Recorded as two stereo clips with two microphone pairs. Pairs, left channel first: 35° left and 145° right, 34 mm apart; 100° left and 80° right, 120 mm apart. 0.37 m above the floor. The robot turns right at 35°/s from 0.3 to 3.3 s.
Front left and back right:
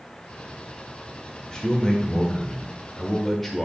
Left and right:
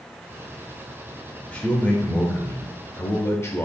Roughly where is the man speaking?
Ahead left.